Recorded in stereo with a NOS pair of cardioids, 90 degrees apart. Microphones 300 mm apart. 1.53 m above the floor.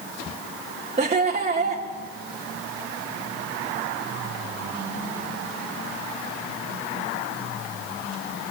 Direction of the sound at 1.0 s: 25° right.